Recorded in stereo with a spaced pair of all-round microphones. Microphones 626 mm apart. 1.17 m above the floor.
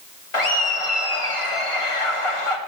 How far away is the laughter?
About 2 m.